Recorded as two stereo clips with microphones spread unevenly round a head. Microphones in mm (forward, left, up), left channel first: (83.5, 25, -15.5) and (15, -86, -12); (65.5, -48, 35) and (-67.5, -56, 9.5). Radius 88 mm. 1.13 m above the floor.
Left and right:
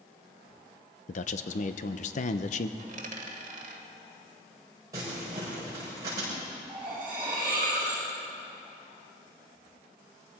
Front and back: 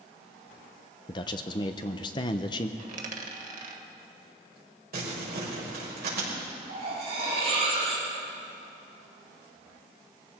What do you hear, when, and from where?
1.1 s a man speaking: 65° left, 0.7 m
2.8 s a dropped coin: 150° right, 1.6 m
4.9 s crumpling: 165° left, 5.5 m
6.7 s cutlery clinking: 160° left, 5 m